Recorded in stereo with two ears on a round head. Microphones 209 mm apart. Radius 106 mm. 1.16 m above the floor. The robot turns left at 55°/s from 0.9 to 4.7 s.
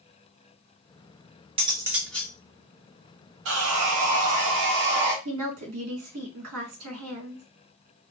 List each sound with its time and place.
1.6 s cutlery clinking: 155° right, 1.0 m; by 2.3 s 165° left, 1.0 m
3.5 s sawing: 60° right, 1.4 m; by 5.2 s 125° right, 1.4 m
5.2 s a woman speaking: 70° right (ahead or behind), 2 m